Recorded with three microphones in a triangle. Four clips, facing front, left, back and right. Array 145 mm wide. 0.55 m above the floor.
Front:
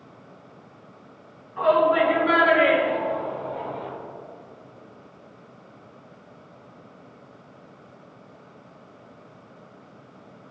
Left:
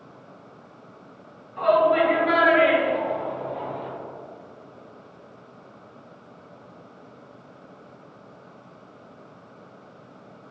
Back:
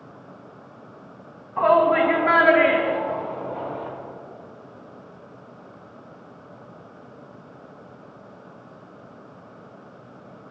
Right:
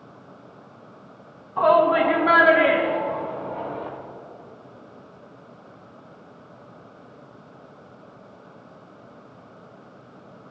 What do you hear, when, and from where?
1.6 s a shout: 130° right, 4 m; by 3.9 s 120° right, 5.5 m